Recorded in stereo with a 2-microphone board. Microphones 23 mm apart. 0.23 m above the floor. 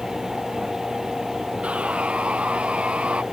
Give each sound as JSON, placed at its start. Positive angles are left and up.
{"t": 1.6, "sound": "sawing", "side_deg": -60}